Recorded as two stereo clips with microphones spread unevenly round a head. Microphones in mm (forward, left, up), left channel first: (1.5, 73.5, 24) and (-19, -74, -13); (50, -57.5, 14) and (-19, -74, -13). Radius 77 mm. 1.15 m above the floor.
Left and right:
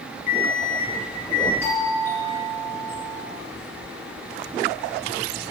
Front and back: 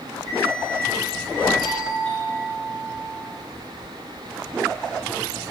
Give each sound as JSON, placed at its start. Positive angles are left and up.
{"t": 0.3, "sound": "an alarm clock", "azimuth_deg": 125, "distance_m": 4.5}
{"t": 1.6, "sound": "a doorbell", "azimuth_deg": 160, "distance_m": 3.5}